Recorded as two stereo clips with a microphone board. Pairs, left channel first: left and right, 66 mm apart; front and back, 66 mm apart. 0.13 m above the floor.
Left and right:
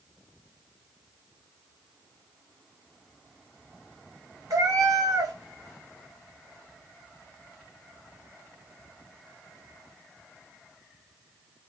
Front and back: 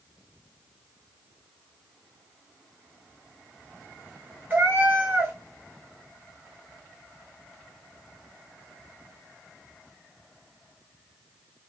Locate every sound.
4.5 s a cat meowing: 115° right, 1.4 m